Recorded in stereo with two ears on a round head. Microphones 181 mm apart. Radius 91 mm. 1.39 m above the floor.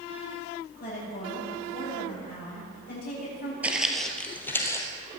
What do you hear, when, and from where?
0.8 s a woman speaking: 45° left (ahead or behind), 8.5 m
3.6 s footsteps: 5° right (ahead or behind), 1.7 m; by 4.9 s 15° left (ahead or behind), 2.5 m